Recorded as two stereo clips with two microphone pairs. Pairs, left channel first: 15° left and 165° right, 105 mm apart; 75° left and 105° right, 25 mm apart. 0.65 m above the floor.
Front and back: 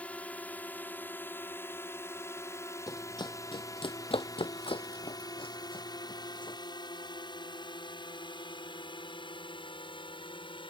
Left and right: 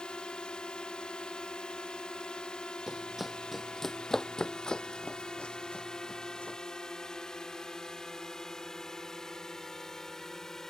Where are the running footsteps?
30° right; by 6.6 s 50° left.